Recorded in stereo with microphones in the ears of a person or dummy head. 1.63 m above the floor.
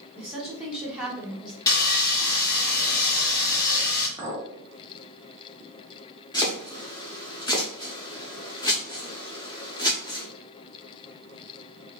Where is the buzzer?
I don't hear a buzzer.